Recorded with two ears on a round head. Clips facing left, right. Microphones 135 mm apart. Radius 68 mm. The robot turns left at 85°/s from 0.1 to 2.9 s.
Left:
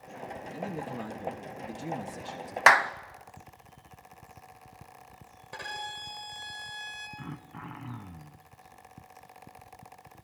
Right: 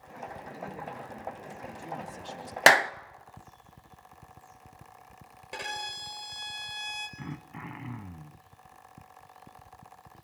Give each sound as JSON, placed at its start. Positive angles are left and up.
{"t": 0.5, "sound": "a man speaking", "azimuth_deg": 150, "distance_m": 2.5}
{"t": 2.7, "sound": "a clap", "side_deg": -40, "distance_m": 0.6}
{"t": 5.5, "sound": "a violin", "side_deg": -25, "distance_m": 5.0}
{"t": 7.2, "sound": "throat clearing", "side_deg": -10, "distance_m": 1.3}